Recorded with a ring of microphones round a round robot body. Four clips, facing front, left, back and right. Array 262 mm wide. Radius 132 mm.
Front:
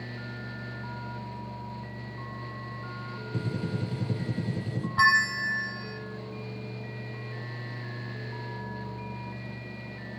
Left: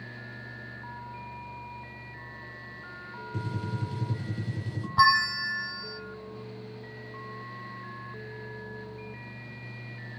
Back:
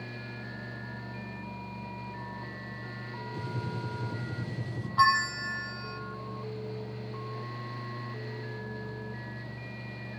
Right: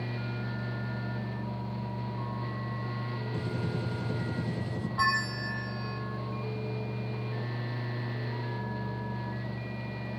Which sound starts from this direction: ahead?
A gunshot, at 3.3 s.